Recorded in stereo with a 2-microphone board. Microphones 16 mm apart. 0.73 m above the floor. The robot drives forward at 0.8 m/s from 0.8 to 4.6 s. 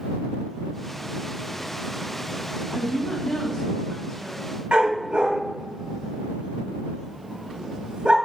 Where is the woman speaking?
40° left (ahead or behind), 3 m; by 4.5 s 25° left (ahead or behind), 4 m.